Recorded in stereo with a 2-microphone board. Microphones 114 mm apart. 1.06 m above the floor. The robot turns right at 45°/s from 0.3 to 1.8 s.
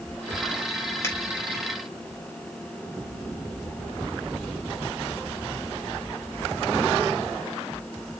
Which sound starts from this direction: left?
A finger snap, at 1.0 s.